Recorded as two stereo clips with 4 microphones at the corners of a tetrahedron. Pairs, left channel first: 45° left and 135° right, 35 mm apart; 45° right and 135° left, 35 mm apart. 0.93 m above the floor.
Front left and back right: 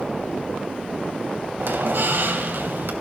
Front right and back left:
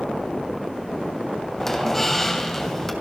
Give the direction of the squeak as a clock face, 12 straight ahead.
4 o'clock.